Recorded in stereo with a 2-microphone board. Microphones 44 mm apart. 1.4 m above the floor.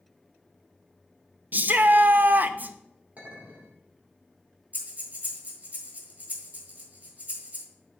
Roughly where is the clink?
Right.